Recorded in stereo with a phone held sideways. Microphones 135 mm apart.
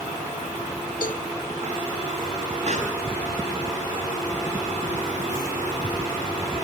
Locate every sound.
1.0 s a cowbell: 80° left, 0.8 m
2.7 s a pop: 60° right (ahead or behind), 5.5 m